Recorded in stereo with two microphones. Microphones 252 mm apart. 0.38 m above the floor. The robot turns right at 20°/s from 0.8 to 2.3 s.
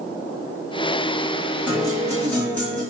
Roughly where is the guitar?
Centre.